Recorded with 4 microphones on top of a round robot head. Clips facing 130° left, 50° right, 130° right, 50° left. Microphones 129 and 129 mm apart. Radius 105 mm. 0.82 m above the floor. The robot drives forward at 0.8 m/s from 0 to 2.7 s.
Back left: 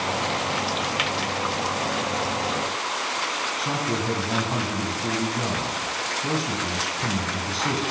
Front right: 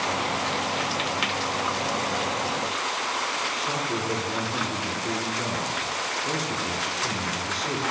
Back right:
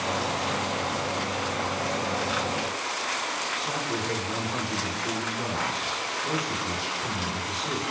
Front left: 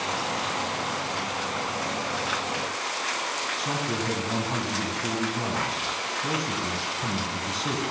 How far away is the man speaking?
About 9.5 m.